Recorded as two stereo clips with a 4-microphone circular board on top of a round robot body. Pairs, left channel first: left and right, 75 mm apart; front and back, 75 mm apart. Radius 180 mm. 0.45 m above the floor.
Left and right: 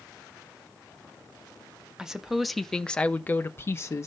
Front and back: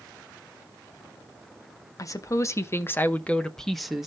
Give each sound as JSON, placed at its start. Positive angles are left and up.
{"t": 2.0, "sound": "a woman speaking", "azimuth_deg": -10, "distance_m": 1.2}